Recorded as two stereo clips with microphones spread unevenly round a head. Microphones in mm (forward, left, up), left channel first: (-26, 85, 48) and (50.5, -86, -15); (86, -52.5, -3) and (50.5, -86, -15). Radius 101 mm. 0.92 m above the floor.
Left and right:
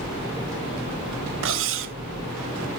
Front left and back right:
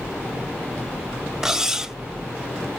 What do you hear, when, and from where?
1.4 s cutlery clinking: 55° right, 0.9 m